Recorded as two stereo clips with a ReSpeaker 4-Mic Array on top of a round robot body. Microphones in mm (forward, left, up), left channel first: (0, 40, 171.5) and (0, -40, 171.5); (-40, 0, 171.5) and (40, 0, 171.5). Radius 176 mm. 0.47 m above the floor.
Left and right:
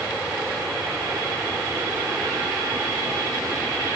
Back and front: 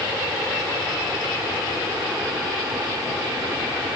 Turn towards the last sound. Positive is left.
No sound to turn to.